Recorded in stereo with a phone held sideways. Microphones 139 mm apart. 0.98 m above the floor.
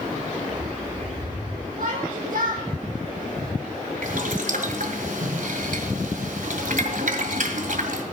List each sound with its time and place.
0.4 s a bird: 55° right (ahead or behind), 4 m
1.8 s a shout: 70° right (ahead or behind), 2.0 m
4.0 s boiling: 65° right (ahead or behind), 1.9 m